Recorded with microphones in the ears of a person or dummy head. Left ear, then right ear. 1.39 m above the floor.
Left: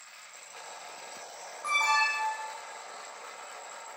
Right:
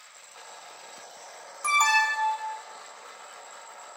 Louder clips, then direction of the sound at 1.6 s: Right 4 dB; 70° right (ahead or behind).